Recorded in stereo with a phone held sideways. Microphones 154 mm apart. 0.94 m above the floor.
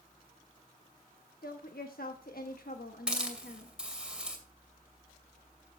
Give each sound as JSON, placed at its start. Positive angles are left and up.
{"t": 1.4, "sound": "a woman speaking", "side_deg": 75, "distance_m": 1.1}
{"t": 3.1, "sound": "a hiss", "side_deg": -5, "distance_m": 2.5}